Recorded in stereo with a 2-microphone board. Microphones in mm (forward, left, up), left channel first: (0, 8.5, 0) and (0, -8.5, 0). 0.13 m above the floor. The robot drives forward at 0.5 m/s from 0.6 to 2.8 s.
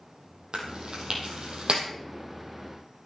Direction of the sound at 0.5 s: 65° right (ahead or behind).